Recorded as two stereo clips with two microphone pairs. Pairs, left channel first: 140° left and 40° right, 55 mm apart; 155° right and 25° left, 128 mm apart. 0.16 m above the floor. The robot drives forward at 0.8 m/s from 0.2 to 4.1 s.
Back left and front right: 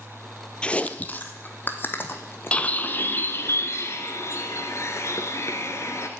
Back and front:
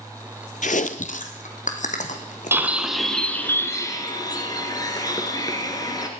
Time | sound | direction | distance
0.6 | chewing | 150° right | 0.7 m
2.5 | a bird | 85° left | 1.1 m